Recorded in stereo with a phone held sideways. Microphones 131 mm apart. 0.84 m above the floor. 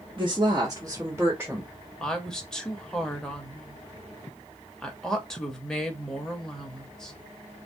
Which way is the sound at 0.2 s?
40° right (ahead or behind).